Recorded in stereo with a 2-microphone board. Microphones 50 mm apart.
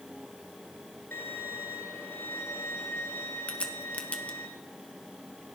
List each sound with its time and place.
1.1 s a violin: 60° left (ahead or behind), 2.5 m
3.5 s a crack: 25° left (ahead or behind), 1.2 m